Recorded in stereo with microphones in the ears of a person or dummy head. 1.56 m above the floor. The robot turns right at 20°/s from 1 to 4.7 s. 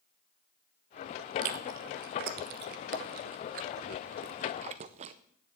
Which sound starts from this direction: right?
Chewing, at 1.4 s.